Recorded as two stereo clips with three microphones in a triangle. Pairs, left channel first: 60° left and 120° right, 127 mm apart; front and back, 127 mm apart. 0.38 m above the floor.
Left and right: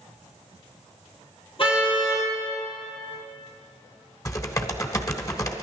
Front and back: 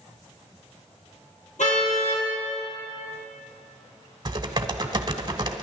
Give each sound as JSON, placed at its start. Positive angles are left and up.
{"t": 1.6, "sound": "a car horn", "azimuth_deg": 15, "distance_m": 4.5}
{"t": 4.2, "sound": "typing on a keyboard", "azimuth_deg": 125, "distance_m": 1.0}